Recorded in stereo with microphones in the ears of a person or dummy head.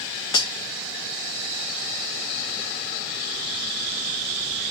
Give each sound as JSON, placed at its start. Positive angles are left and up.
{"t": 0.3, "sound": "cutlery clinking", "side_deg": 20, "distance_m": 0.5}